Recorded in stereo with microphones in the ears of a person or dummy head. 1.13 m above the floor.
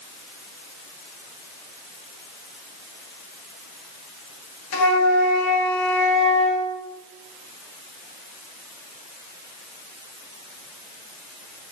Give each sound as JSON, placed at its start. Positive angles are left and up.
{"t": 4.7, "sound": "a flute", "side_deg": 75, "distance_m": 0.8}